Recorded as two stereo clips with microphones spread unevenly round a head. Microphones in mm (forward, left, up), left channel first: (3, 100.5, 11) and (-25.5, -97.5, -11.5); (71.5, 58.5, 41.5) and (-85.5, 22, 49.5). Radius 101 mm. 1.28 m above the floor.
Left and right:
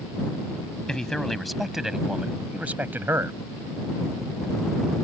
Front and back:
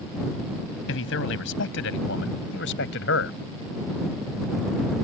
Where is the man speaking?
5° right; by 3.4 s 20° right.